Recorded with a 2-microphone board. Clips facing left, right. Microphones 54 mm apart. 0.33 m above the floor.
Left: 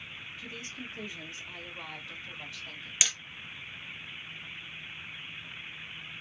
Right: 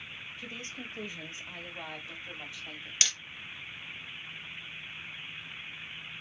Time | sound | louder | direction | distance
0.4 | a woman speaking | right 1 dB | 40° right (ahead or behind) | 1.6 m
3.0 | hammering | left 1 dB | 10° left (ahead or behind) | 0.6 m